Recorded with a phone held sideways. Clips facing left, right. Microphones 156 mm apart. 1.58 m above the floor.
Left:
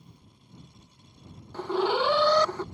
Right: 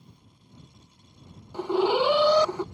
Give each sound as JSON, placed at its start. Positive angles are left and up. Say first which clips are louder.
{"t": 1.5, "sound": "an alarm", "louder": "right 3 dB", "side_deg": -15}